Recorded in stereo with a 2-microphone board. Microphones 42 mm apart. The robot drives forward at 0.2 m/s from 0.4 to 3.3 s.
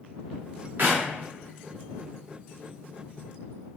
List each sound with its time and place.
0.8 s a clap: 55° right (ahead or behind), 0.8 m